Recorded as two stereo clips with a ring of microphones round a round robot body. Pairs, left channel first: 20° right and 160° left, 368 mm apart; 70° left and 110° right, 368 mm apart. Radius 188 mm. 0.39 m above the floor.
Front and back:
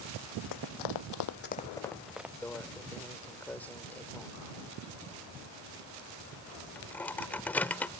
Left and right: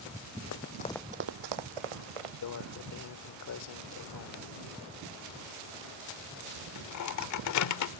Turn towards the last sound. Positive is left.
turn(degrees=60)